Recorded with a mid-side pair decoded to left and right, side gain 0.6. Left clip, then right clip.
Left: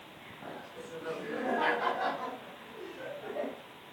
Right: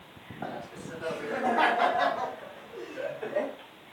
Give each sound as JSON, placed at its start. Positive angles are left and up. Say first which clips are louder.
{"t": 0.4, "sound": "laughter", "louder": "right 7 dB", "azimuth_deg": -65, "distance_m": 8.5}